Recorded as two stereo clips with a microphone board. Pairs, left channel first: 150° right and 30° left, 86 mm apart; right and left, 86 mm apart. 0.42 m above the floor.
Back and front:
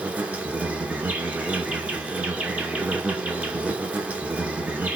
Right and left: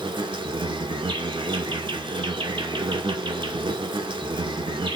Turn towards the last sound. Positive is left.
turn(degrees=105)